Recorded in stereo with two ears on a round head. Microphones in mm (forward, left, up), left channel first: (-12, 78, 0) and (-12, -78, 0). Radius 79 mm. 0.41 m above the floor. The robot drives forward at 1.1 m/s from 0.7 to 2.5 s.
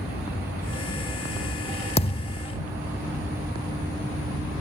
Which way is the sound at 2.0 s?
35° left (ahead or behind).